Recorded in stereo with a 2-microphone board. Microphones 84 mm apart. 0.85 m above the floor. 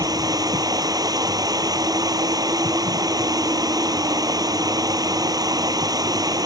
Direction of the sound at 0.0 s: 45° right (ahead or behind).